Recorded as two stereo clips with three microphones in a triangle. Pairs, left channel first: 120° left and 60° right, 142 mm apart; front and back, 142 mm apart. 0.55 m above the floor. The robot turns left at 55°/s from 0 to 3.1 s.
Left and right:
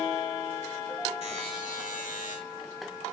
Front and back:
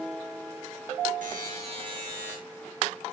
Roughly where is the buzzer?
Behind.